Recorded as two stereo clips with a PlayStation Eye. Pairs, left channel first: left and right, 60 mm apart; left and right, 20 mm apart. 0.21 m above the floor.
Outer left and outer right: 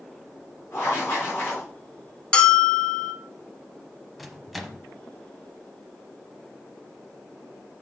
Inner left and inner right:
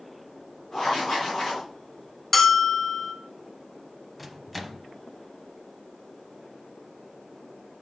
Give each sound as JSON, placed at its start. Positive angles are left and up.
{"t": 0.7, "sound": "writing", "side_deg": 40, "distance_m": 5.0}
{"t": 2.3, "sound": "a bell", "side_deg": 20, "distance_m": 0.8}
{"t": 4.2, "sound": "a microwave", "side_deg": -5, "distance_m": 0.8}